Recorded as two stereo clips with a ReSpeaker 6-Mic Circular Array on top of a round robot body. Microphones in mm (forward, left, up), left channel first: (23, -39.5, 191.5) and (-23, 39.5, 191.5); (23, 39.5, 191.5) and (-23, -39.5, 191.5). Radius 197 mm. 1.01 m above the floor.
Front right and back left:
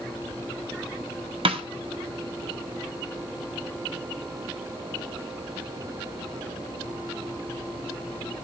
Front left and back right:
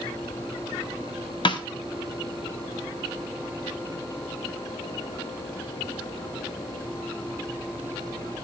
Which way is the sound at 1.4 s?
95° left.